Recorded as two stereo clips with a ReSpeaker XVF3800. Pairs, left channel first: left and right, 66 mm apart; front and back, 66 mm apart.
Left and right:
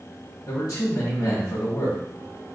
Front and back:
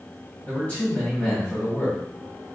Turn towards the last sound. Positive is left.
turn(degrees=65)